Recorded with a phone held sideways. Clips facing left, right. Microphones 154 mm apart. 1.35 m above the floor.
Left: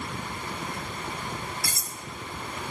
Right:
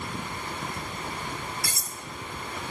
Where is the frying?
No frying in this recording.